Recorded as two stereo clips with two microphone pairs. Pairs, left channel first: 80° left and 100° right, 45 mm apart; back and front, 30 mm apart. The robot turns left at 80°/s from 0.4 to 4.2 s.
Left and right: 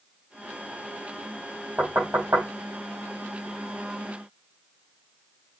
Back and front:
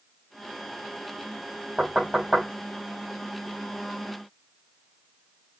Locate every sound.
1.8 s knocking: 50° right, 4.5 m; by 2.5 s 100° right, 4.5 m